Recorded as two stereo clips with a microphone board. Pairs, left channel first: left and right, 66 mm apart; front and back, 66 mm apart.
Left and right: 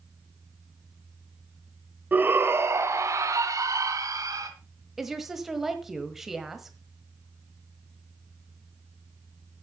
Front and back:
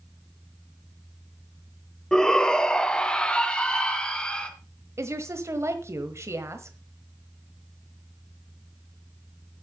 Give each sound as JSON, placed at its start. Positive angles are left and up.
{"t": 2.1, "sound": "a shout", "azimuth_deg": -70, "distance_m": 1.0}
{"t": 5.0, "sound": "a woman speaking", "azimuth_deg": -175, "distance_m": 1.2}